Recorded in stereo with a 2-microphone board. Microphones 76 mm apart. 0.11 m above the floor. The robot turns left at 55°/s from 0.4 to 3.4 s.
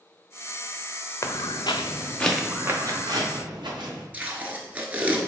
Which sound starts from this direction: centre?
Tape being pulled, at 4.1 s.